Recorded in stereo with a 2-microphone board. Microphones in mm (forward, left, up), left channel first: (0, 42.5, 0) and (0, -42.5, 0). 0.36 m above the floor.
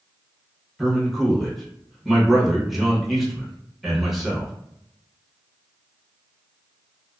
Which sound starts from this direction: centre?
A man speaking, at 0.8 s.